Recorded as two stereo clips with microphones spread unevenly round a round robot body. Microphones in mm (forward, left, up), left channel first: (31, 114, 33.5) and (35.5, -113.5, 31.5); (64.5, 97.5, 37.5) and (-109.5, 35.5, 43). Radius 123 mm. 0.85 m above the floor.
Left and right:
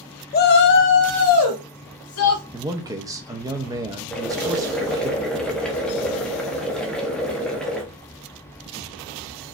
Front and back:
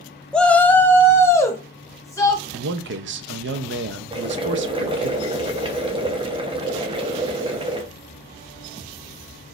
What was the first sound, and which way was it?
A shout, 100° left.